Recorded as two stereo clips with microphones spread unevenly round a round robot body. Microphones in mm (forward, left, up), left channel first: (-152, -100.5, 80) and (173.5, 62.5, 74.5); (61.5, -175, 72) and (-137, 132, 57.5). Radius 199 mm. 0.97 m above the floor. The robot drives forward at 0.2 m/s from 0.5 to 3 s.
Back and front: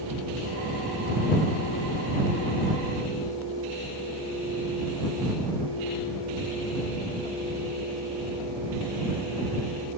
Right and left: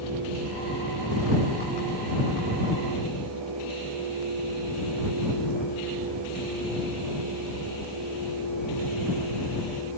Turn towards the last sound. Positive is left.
No sound to turn to.